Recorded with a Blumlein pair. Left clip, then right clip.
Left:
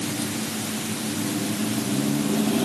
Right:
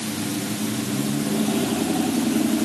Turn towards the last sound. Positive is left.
No sound to turn to.